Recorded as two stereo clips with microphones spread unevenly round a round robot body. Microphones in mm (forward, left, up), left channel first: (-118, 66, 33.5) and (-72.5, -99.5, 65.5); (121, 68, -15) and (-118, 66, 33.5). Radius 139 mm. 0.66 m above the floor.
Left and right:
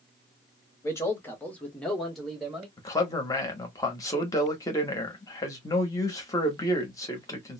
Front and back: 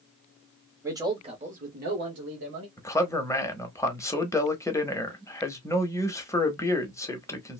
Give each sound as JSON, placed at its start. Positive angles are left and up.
{"t": 0.8, "sound": "a man speaking", "azimuth_deg": 90, "distance_m": 1.1}
{"t": 2.8, "sound": "a man speaking", "azimuth_deg": 60, "distance_m": 0.8}